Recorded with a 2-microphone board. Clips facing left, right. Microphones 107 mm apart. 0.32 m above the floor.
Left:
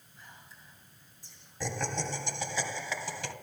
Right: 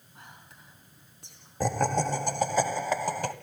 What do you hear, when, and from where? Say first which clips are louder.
0.1 s whispering: right 3 dB; 70° right (ahead or behind), 3.5 m
1.6 s laughter: right 9 dB; 45° right (ahead or behind), 1.5 m